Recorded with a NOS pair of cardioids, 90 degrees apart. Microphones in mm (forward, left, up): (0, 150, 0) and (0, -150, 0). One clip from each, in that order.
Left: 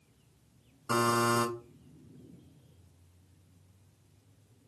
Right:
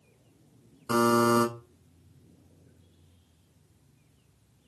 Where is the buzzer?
Straight ahead, 2.5 m.